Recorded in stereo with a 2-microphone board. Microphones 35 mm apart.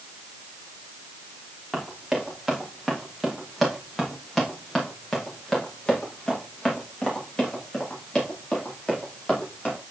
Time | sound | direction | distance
1.7 | running footsteps | 10° right (ahead or behind) | 6 m